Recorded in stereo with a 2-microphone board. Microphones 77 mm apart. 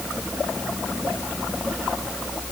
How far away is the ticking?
I don't hear ticking.